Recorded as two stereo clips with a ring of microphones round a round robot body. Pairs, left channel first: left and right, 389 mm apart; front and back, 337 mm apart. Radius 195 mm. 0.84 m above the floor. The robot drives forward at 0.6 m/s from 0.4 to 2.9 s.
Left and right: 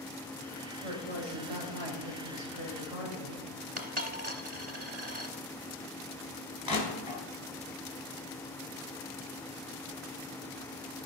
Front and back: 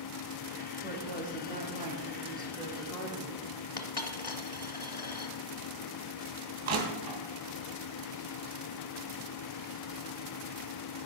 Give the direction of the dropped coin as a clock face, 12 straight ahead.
2 o'clock.